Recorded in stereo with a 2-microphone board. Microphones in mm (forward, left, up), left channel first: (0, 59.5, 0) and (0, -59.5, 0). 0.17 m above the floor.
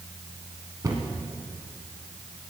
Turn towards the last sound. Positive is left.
turn(degrees=-30)  # may be behind; listen again after turning